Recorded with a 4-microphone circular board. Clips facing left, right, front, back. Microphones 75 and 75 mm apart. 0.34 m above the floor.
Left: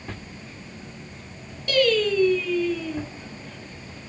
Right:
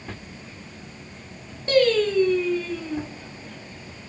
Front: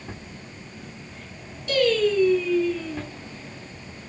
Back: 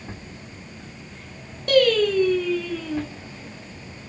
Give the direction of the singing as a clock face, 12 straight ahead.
5 o'clock.